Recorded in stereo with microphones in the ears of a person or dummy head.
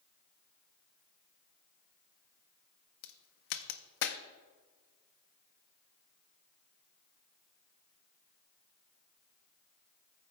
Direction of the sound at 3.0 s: 55° left (ahead or behind).